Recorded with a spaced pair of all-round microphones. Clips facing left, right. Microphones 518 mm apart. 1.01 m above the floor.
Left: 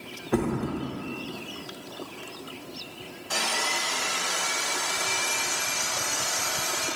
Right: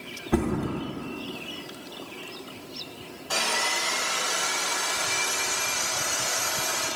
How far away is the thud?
About 0.7 m.